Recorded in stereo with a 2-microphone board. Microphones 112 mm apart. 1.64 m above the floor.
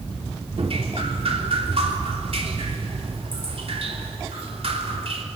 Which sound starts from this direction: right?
Dripping, at 0.6 s.